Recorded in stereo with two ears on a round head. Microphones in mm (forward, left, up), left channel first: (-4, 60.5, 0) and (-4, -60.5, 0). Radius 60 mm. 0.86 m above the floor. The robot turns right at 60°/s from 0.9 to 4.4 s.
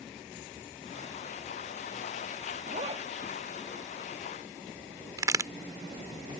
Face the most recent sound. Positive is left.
turn(degrees=-25)  # may be behind; listen again after turning